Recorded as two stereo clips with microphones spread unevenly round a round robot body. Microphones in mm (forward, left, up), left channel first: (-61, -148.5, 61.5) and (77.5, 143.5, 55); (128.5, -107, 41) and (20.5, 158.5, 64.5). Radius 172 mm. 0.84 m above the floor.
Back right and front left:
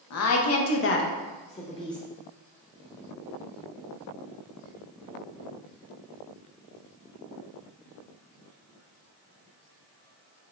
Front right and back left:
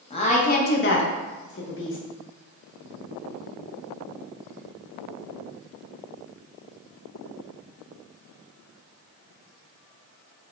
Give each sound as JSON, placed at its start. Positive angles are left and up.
{"t": 0.1, "sound": "a woman speaking", "azimuth_deg": -130, "distance_m": 0.9}